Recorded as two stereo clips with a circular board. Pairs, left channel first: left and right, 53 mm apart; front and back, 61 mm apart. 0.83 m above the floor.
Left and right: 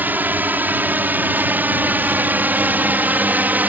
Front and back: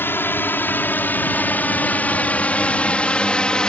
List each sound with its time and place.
0.0 s a drone: 45° right; by 3.7 s 65° right